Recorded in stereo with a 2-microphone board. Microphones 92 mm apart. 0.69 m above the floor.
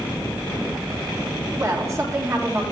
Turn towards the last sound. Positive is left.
turn(degrees=-30)  # may be behind; listen again after turning